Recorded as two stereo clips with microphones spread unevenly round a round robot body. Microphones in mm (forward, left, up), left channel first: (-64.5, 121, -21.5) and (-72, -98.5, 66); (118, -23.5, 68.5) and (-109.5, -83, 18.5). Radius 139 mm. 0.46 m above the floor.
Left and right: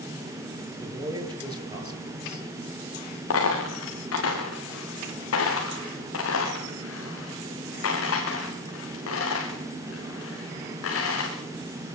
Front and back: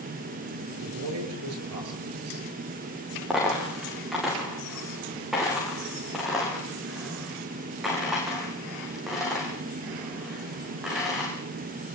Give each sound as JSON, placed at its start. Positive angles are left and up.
{"t": 0.8, "sound": "a man speaking", "azimuth_deg": -165, "distance_m": 8.0}
{"t": 3.3, "sound": "a dropped coin", "azimuth_deg": 105, "distance_m": 8.5}